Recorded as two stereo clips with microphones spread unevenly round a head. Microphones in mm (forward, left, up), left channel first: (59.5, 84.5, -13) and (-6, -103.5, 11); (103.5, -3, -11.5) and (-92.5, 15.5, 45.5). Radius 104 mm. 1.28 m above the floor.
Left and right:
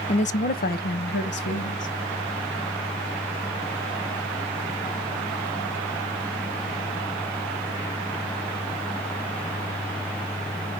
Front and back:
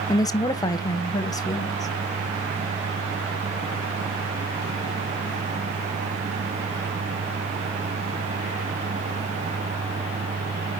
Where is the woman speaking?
40° left, 0.6 m; by 1.9 s 60° left, 1.5 m.